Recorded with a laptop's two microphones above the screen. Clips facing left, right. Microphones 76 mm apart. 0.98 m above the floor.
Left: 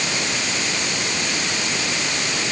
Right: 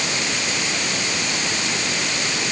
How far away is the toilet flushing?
No toilet flushing in this recording.